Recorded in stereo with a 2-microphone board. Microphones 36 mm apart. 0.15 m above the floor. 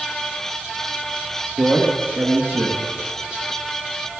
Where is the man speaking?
55° right (ahead or behind), 3 m.